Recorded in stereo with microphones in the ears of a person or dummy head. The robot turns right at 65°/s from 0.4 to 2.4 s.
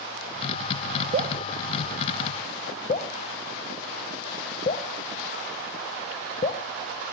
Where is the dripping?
40° right (ahead or behind), 0.6 m; by 6.6 s 45° left (ahead or behind), 0.6 m.